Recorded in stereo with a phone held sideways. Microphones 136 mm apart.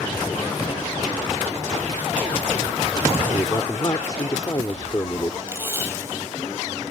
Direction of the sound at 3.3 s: 30° left (ahead or behind).